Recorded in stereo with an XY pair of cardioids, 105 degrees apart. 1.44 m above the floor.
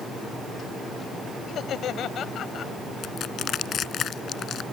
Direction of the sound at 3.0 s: 60° left.